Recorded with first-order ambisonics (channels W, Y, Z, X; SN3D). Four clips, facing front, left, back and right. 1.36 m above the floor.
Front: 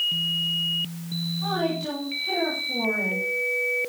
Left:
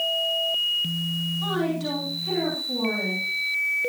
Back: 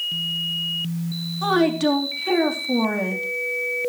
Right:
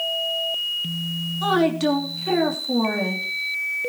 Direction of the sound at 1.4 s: 145° right.